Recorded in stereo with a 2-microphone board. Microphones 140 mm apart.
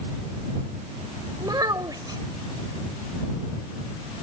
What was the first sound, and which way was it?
A child speaking, 30° right (ahead or behind).